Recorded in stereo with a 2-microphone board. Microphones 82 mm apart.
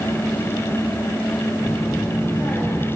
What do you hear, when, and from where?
1.6 s a child speaking: 40° left (ahead or behind), 7.5 m; by 2.9 s 30° left (ahead or behind), 7 m